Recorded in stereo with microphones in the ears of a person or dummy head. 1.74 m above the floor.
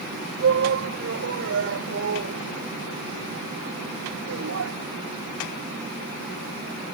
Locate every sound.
0.4 s a shout: 70° right (ahead or behind); by 4.7 s 85° right